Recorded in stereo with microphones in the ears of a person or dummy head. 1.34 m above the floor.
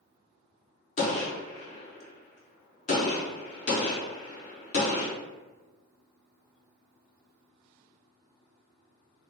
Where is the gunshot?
40° left (ahead or behind), 0.7 m.